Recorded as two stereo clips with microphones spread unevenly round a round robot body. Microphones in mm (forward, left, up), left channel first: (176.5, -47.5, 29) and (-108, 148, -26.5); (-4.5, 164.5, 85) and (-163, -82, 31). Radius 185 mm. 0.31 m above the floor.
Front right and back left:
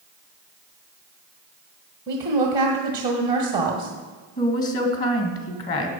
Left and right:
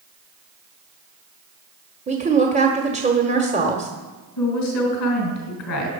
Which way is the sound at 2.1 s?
155° right.